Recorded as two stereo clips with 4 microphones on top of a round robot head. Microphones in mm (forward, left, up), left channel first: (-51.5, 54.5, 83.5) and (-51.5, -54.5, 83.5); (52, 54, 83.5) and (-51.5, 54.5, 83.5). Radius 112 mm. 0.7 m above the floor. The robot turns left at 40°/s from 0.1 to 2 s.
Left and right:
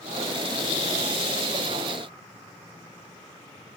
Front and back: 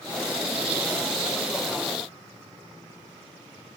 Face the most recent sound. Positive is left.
No sound to turn to.